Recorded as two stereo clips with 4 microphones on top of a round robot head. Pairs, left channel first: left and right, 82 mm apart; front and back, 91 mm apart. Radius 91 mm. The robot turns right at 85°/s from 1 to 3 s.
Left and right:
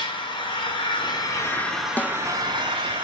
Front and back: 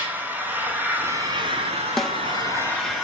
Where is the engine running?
110° left, 6 m; by 3.0 s 80° right, 6 m.